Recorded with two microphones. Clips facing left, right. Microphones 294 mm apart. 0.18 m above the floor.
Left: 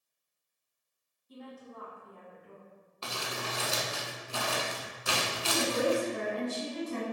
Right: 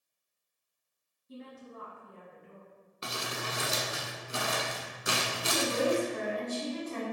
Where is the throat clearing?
No throat clearing in this recording.